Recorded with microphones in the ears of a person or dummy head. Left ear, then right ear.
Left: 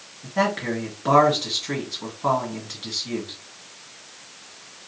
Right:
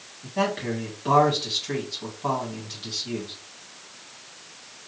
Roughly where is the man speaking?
Left.